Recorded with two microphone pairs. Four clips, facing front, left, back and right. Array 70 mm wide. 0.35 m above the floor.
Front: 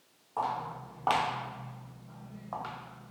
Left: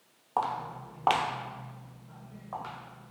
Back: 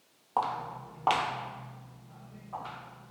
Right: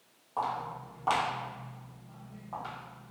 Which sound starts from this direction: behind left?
Footsteps, at 0.4 s.